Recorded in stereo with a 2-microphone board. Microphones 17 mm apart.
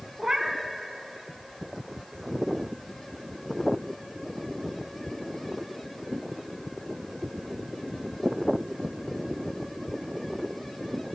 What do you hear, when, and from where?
0.2 s a cat meowing: 35° right (ahead or behind), 1.4 m